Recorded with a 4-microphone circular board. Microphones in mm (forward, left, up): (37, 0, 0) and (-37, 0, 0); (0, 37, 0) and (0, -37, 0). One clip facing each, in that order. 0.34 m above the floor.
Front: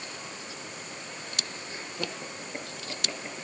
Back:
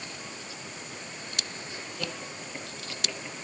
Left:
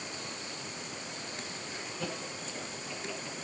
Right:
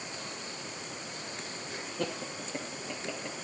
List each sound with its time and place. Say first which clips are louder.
1.7 s laughter: front 1 dB, right 4 dB; 65° right, 7 m